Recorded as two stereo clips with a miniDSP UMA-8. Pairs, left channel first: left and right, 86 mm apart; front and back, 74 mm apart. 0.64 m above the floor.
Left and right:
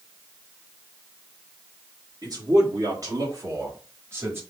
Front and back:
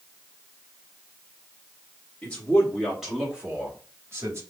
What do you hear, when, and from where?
2.2 s a man speaking: 70° right, 1.6 m; by 4.4 s 145° right, 1.7 m